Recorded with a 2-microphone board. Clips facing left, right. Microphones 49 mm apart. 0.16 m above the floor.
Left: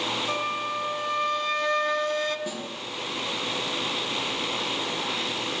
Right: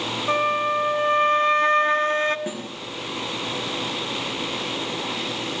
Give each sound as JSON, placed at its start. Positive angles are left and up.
{"t": 0.3, "sound": "a flute", "side_deg": -35, "distance_m": 0.5}
{"t": 2.5, "sound": "a snare drum", "side_deg": -30, "distance_m": 3.0}